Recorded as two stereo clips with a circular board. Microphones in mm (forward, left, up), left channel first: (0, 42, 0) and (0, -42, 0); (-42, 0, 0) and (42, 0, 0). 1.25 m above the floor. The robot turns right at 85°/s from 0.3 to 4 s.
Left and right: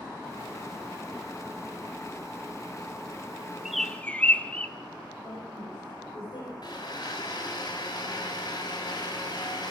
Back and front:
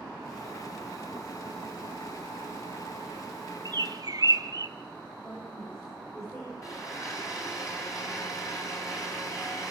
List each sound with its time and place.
3.6 s a bird: 10° right, 1.0 m; by 4.7 s 20° left, 1.0 m
5.2 s a woman speaking: 125° left, 6 m
6.6 s a blender: 130° left, 4.5 m